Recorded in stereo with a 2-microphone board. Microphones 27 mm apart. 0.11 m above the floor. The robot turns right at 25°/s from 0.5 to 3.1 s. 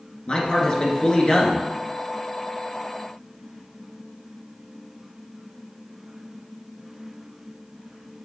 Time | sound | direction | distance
0.3 | a man speaking | 35° left (ahead or behind) | 1.7 m